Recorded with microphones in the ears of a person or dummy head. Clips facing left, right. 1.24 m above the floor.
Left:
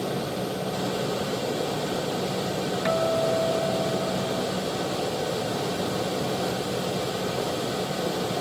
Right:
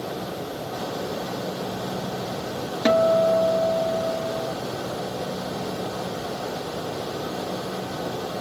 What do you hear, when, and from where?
2.9 s a guitar: 40° right (ahead or behind)